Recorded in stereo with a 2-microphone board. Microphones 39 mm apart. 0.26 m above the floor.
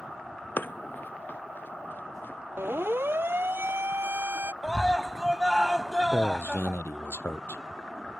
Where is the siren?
80° right.